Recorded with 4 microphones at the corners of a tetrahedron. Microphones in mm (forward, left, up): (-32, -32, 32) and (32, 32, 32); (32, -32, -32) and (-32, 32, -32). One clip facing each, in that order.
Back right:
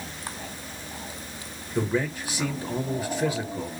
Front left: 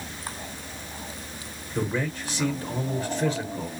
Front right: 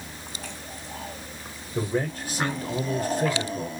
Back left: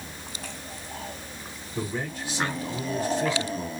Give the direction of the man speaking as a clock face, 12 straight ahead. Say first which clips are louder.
Back right 2 dB, front right 5 dB; 2 o'clock.